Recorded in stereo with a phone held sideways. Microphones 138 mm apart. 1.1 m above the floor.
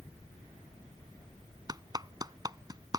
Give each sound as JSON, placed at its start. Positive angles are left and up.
{"t": 1.7, "sound": "a clap", "side_deg": -30}